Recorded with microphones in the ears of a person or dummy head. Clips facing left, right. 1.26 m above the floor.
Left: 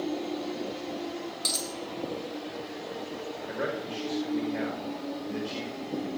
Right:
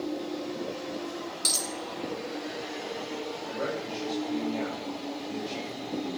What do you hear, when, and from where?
1.4 s a dropped coin: 20° right (ahead or behind), 1.4 m
3.5 s a man speaking: 15° left (ahead or behind), 5 m